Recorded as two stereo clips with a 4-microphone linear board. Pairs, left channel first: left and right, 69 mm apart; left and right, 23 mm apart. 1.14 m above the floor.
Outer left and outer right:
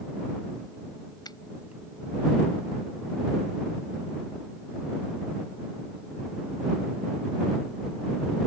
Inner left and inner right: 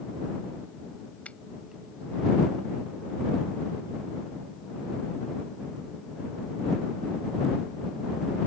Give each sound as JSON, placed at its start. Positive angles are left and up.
{"t": 1.2, "sound": "a finger snap", "side_deg": 80}